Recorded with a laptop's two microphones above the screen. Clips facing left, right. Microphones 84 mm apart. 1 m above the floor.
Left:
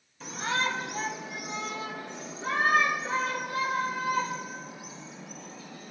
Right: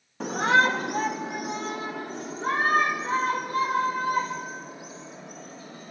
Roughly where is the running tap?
No running tap in this recording.